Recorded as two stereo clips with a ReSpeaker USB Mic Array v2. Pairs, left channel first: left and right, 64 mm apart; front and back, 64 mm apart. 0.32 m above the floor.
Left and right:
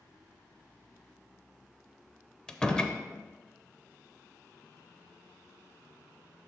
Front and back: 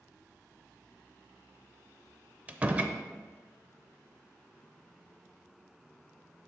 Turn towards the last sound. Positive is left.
turn(degrees=150)